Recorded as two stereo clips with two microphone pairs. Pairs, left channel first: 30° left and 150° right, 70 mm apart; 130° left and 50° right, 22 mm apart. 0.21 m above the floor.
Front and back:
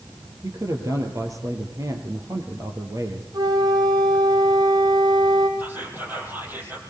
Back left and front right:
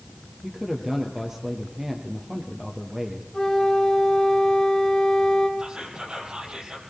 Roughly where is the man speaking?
Behind right.